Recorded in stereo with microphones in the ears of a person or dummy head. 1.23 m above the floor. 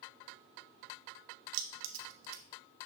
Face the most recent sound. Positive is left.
turn(degrees=-75)  # may be behind; listen again after turning